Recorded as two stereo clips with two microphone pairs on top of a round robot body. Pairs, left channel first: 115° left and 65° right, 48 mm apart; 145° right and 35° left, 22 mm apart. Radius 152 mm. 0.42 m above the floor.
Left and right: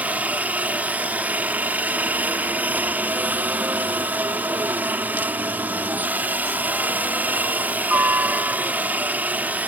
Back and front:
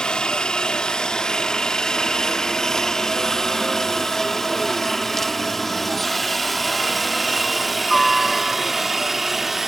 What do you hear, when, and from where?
0.0 s a helicopter: 110° right; by 9.7 s 30° right